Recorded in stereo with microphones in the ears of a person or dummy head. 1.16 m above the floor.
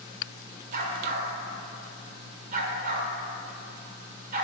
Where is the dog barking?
45° right (ahead or behind), 1.3 m.